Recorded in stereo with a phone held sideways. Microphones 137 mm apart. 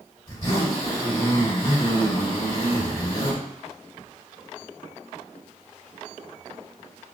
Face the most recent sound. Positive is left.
turn(degrees=30)  # may be behind; listen again after turning